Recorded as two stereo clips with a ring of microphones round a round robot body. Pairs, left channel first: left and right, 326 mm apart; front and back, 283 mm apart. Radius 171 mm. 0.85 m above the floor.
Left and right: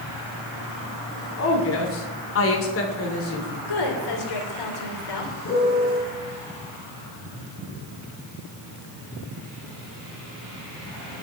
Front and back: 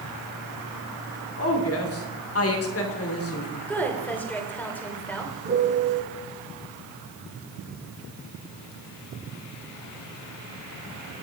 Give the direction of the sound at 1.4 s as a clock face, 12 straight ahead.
11 o'clock.